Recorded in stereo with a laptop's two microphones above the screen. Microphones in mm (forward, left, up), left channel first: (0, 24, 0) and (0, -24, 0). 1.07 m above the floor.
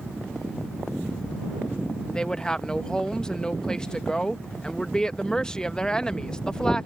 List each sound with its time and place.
2.1 s a woman speaking: 15° left (ahead or behind)